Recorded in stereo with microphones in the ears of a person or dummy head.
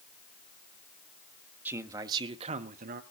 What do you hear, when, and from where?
1.6 s a man speaking: 10° right (ahead or behind), 1.4 m; by 3.0 s 50° right (ahead or behind), 1.3 m